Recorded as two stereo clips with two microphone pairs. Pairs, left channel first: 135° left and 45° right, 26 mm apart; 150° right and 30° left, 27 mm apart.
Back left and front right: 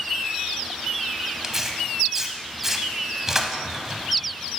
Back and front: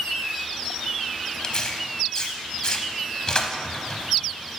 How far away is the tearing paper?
About 0.7 m.